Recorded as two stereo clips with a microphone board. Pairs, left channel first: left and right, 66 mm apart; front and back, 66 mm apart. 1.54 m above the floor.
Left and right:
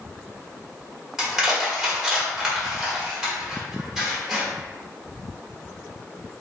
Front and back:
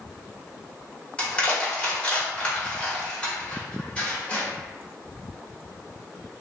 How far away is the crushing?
About 1.3 m.